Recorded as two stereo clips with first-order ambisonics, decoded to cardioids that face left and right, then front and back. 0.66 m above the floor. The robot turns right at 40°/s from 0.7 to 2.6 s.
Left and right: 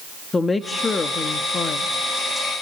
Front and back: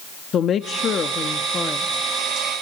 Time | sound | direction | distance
0.3 | a woman speaking | 25° left | 0.8 m